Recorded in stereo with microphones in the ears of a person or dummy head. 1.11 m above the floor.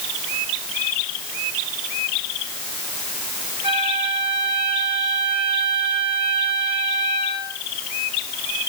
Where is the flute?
30° right (ahead or behind), 7.5 m.